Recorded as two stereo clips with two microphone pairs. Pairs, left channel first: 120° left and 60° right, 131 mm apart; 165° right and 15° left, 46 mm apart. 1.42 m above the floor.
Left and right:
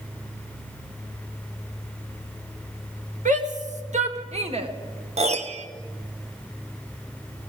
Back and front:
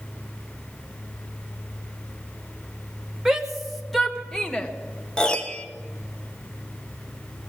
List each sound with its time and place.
3.2 s a shout: 70° right, 2.0 m; by 4.7 s 100° right, 1.5 m
5.2 s a piano: 90° right, 1.0 m